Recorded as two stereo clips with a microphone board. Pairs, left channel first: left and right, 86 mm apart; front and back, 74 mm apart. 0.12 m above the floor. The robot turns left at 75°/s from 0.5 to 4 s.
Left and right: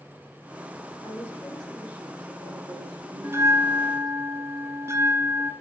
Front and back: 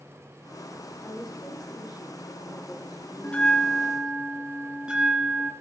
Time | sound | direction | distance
1.0 | a woman speaking | 50° left | 5.5 m
3.2 | a bell | 55° right | 1.0 m